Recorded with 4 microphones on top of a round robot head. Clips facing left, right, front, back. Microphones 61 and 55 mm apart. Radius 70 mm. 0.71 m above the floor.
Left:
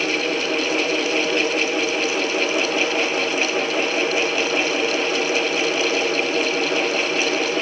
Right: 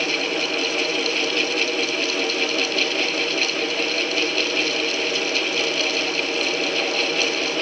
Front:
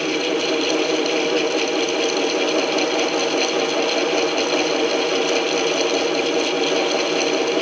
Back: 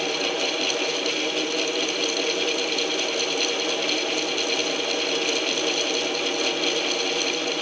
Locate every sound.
Only background noise.